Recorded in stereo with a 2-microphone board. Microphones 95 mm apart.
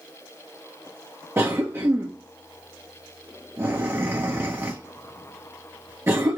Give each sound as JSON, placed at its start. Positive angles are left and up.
{"t": 1.4, "sound": "a cough", "side_deg": -25, "distance_m": 0.9}